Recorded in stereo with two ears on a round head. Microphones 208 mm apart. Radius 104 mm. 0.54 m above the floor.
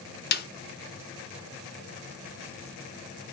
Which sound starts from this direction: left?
A snare drum, at 0.3 s.